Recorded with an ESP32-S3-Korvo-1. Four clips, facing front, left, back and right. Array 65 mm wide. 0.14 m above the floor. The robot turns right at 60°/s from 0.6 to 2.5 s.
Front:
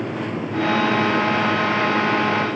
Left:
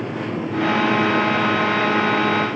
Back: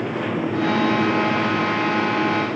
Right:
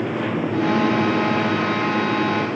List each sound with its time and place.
Only background noise.